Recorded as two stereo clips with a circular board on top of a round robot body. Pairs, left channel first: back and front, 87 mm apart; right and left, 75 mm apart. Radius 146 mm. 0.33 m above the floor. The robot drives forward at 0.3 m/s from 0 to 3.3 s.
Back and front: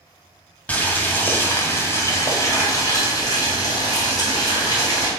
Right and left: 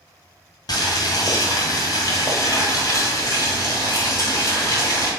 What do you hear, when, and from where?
0.7 s boiling: 105° right, 1.2 m; by 5.1 s 135° right, 1.6 m